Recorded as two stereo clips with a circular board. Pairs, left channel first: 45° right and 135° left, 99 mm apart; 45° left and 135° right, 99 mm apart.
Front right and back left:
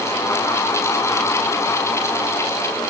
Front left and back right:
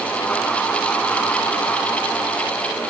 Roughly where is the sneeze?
No sneeze in this recording.